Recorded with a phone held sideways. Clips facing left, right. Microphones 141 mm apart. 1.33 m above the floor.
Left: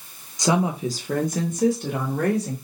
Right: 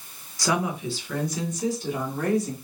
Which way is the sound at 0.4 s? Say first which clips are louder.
Left 4 dB; 20° left (ahead or behind).